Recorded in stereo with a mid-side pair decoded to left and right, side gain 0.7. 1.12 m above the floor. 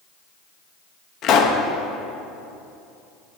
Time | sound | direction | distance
1.2 | a pop | 50° left | 1.2 m